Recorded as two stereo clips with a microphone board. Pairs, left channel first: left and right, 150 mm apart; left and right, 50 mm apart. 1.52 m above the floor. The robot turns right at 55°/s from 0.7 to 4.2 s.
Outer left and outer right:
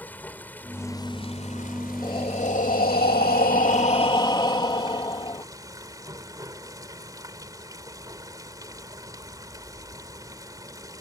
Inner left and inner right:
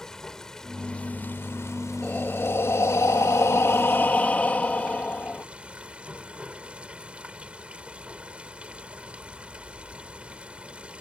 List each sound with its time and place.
0.0 s running water: 10° left; by 11.0 s 155° right
2.0 s breathing: 30° left; by 5.5 s 150° left